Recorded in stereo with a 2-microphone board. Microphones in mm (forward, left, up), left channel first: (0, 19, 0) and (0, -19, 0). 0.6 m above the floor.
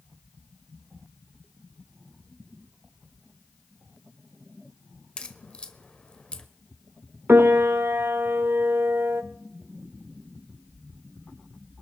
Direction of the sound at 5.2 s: 30° left (ahead or behind).